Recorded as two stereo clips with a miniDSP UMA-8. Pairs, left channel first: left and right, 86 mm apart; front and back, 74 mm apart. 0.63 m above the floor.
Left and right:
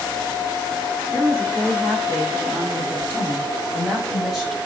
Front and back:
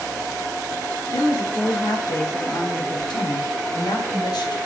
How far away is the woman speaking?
About 6.5 m.